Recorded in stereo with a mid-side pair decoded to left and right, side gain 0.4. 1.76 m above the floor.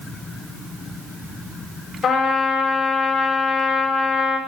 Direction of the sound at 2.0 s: 65° left.